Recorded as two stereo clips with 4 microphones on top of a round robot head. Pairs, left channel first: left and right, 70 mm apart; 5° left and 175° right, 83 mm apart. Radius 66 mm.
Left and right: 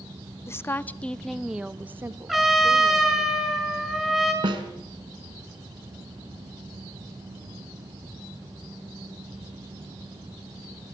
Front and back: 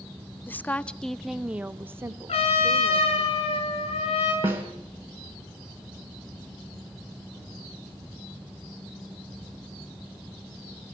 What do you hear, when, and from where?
0.5 s a woman speaking: 60° left, 0.9 m; by 3.3 s 125° right, 1.6 m
2.3 s a trumpet: straight ahead, 6 m
4.4 s a snare drum: 105° right, 3 m